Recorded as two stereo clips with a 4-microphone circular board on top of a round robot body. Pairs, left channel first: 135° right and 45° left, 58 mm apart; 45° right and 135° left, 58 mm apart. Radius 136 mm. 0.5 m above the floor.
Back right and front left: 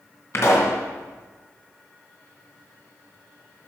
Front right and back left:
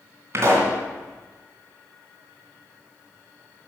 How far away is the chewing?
I don't hear chewing.